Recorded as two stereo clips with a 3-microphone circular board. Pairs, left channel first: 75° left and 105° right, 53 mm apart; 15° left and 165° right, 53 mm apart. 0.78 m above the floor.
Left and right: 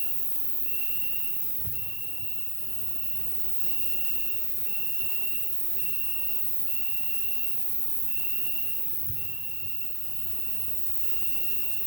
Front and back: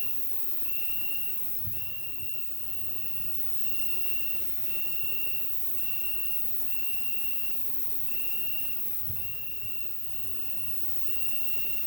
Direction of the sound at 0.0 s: 20° right.